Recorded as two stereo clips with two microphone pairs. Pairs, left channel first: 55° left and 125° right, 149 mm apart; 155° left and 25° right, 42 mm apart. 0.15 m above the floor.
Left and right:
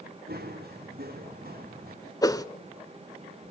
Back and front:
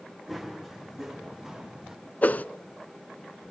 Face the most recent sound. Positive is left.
turn(degrees=120)